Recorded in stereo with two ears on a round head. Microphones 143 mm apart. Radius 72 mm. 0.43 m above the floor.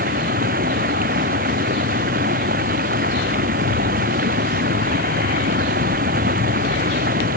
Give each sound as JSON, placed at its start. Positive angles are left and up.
{"t": 0.0, "sound": "running water", "side_deg": -55}